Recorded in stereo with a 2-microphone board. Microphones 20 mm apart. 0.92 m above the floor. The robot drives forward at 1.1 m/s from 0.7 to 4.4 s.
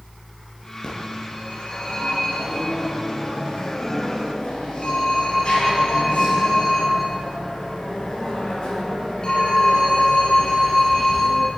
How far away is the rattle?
No rattle in this recording.